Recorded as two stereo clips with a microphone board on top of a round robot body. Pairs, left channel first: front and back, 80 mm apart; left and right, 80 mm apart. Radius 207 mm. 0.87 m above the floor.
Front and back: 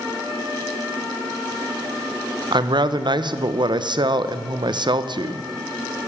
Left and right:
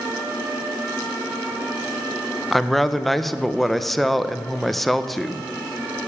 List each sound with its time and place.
2.5 s a woman speaking: 175° left, 0.7 m